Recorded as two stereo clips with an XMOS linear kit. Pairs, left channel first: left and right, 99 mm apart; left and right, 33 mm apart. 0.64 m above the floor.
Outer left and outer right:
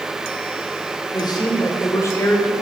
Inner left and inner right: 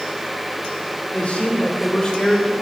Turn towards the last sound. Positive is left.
turn(degrees=20)  # may be behind; listen again after turning